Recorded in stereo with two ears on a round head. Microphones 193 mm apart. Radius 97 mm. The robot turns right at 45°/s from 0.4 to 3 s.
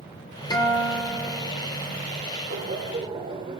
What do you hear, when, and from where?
0.5 s a guitar: 155° left, 1.7 m; by 1.7 s 150° right, 1.7 m
2.5 s laughter: 45° right (ahead or behind), 1.4 m; by 3.6 s 25° right (ahead or behind), 1.4 m